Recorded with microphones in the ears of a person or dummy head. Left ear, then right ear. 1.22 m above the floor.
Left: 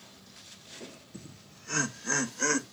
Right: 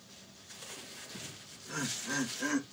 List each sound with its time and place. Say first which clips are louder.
1.1 s laughter: right 4 dB; 70° left (ahead or behind), 1.6 m; by 2.6 s 80° left, 2.5 m